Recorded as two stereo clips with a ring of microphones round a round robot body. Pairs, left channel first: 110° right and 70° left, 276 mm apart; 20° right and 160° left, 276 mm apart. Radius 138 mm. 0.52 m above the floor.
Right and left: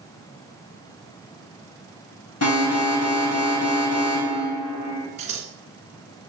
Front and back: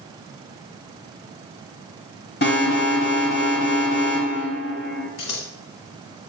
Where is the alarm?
75° right, 4 m.